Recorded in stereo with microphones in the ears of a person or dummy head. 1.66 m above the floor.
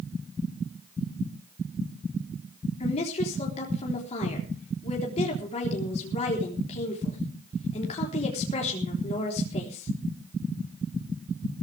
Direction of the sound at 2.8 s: 35° left (ahead or behind).